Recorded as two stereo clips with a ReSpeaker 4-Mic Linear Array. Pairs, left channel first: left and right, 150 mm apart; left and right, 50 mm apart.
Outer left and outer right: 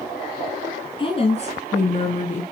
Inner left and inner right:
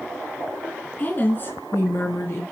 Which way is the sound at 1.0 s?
35° left (ahead or behind).